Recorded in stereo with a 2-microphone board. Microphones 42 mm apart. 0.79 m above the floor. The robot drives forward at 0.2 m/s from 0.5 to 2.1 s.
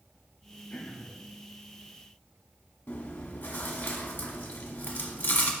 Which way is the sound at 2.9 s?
60° left (ahead or behind).